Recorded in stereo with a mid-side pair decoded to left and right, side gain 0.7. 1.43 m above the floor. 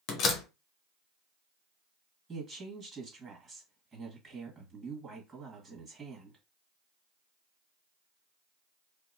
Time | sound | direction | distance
0.1 | a door slam | 55° left | 0.9 m
2.3 | a woman speaking | 15° right | 1.9 m